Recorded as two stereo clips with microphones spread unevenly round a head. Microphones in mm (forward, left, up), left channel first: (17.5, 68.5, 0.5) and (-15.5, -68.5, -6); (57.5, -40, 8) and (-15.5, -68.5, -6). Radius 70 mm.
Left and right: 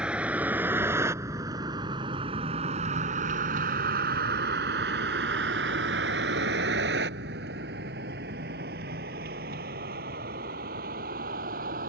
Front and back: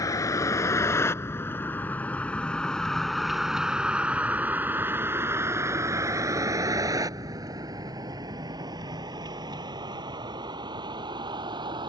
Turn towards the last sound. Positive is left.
turn(degrees=-135)